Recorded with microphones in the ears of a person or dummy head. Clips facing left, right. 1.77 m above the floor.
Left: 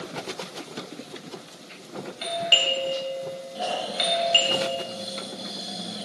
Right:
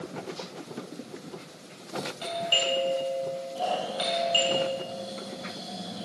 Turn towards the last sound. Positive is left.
turn(degrees=20)  # may be behind; listen again after turning